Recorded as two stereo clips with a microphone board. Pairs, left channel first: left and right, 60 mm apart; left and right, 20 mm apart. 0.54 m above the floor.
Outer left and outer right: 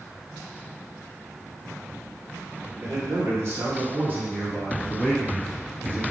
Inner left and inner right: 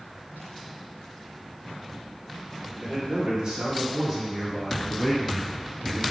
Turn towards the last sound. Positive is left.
turn(degrees=30)  # may be behind; listen again after turning